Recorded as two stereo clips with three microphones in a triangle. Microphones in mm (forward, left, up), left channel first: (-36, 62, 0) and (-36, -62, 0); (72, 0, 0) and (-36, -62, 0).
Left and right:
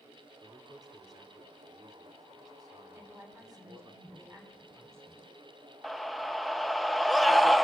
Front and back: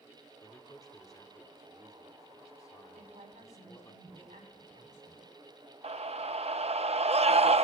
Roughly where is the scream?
Behind.